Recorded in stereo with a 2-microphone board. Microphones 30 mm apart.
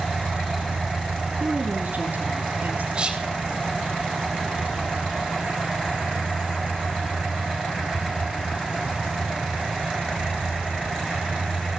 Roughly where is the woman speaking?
Right.